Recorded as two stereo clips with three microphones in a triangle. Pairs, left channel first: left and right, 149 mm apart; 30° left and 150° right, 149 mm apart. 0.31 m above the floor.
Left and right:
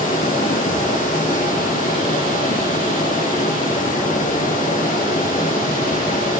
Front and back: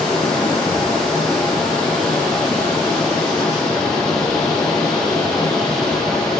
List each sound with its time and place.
0.0 s running water: 115° left, 7 m